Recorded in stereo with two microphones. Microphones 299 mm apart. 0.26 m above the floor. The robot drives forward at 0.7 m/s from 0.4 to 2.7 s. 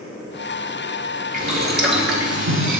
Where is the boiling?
30° right (ahead or behind), 1.3 m; by 2.8 s 70° right (ahead or behind), 0.7 m.